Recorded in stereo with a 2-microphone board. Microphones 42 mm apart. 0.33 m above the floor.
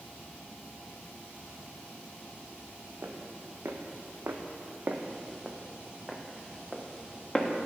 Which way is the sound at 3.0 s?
80° right.